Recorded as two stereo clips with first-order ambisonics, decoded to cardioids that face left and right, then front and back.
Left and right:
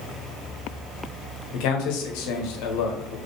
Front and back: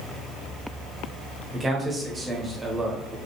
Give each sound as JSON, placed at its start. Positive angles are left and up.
{"t": 1.5, "sound": "a man speaking", "azimuth_deg": 105, "distance_m": 1.1}